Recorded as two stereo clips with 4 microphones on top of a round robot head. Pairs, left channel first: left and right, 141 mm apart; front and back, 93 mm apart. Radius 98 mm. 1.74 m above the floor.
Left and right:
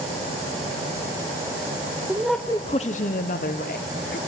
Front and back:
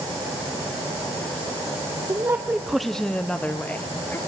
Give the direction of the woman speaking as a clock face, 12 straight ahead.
5 o'clock.